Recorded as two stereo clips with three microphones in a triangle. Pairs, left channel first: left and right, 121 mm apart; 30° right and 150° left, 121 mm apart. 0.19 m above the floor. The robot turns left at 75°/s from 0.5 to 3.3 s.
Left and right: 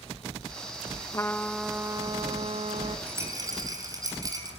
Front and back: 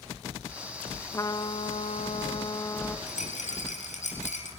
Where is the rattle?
10° right, 4 m; by 4.5 s 30° right, 4 m.